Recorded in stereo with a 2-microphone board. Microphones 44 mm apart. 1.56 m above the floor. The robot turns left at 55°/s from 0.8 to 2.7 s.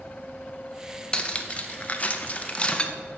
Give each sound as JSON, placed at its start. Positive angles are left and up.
{"t": 1.1, "sound": "cutlery clinking", "side_deg": 25, "distance_m": 0.7}